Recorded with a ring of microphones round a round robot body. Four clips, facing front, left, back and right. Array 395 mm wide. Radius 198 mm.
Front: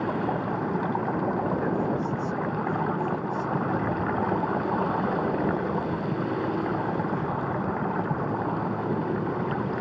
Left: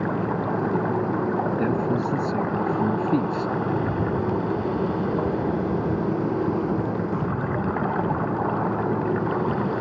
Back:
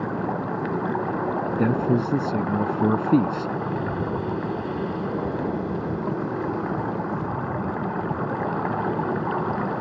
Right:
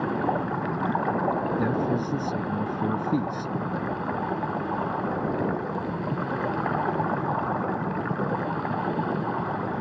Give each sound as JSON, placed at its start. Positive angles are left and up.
{"t": 1.6, "sound": "a man speaking", "azimuth_deg": 175}
{"t": 3.7, "sound": "a rattle", "azimuth_deg": 110}